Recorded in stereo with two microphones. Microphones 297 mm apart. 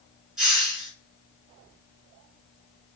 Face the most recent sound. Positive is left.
turn(degrees=0)  # may be behind; listen again after turning